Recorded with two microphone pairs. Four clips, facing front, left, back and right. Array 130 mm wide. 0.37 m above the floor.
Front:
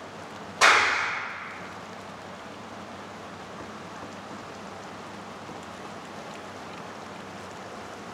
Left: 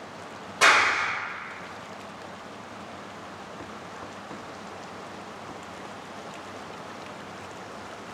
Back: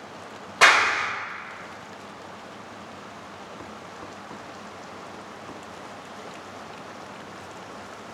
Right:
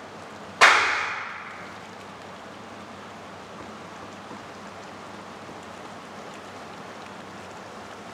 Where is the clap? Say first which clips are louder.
Right 2 dB, back 2 dB; 125° right, 1.1 m.